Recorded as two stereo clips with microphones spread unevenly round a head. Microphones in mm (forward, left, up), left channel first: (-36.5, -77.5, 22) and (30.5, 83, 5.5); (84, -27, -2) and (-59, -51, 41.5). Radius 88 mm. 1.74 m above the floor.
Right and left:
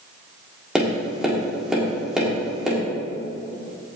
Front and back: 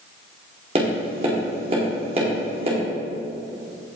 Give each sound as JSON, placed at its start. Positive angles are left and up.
{"t": 0.8, "sound": "tapping", "azimuth_deg": 160, "distance_m": 1.9}